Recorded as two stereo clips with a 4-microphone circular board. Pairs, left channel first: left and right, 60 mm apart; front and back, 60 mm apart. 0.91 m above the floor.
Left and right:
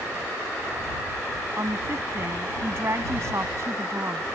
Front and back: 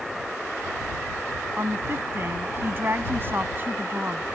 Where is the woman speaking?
135° right; by 4.3 s 125° right.